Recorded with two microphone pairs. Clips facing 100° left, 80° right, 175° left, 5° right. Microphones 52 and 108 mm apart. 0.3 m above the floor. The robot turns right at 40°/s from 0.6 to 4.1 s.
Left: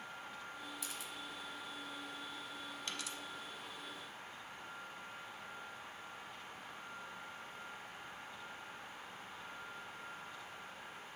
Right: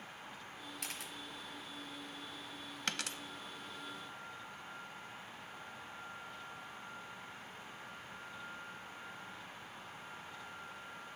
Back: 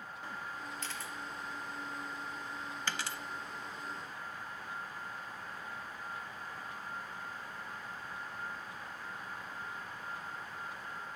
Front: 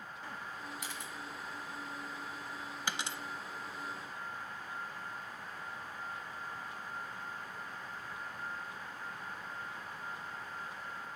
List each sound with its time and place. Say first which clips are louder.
0.8 s a camera shutter: right 1 dB, back 1 dB; 85° right, 1.0 m; by 1.1 s 70° right, 1.0 m
2.9 s a dropped coin: right 7 dB, front 1 dB; 80° right, 0.5 m; by 3.2 s 70° right, 0.5 m